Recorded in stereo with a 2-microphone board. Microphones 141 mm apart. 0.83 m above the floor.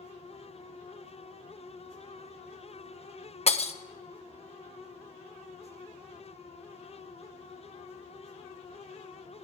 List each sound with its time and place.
3.5 s breaking glass: 45° left (ahead or behind), 0.6 m